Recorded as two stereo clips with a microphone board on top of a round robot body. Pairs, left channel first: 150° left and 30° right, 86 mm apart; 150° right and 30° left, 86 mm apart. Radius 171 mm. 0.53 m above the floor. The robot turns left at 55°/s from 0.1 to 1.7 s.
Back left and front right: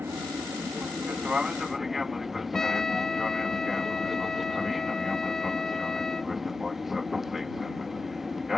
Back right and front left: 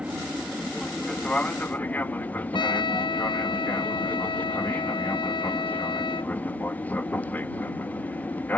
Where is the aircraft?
25° right; by 8.6 s 115° right.